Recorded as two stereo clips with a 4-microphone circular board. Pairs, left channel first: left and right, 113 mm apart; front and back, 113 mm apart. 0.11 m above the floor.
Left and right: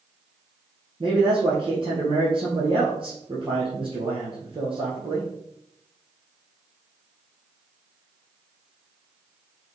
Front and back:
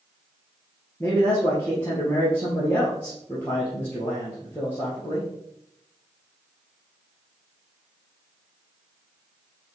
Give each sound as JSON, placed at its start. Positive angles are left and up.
{"t": 1.0, "sound": "a man speaking", "azimuth_deg": -65, "distance_m": 2.5}